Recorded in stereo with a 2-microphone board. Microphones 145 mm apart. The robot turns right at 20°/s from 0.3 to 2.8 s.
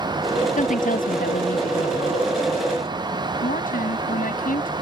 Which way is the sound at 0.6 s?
60° left.